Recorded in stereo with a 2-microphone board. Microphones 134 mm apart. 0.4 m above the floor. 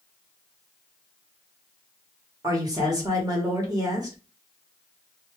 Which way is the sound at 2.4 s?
30° right (ahead or behind).